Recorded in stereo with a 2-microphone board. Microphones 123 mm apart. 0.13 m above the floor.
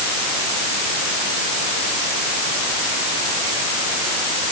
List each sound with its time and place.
Only background noise.